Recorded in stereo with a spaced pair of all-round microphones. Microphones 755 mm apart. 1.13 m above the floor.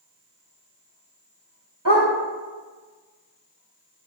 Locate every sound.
1.9 s a dog barking: 25° right (ahead or behind), 3.5 m